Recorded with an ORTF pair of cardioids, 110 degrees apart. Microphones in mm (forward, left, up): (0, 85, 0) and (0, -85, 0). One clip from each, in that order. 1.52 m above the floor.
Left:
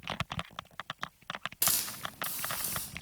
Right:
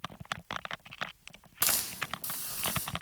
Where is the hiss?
Straight ahead, 2.5 m.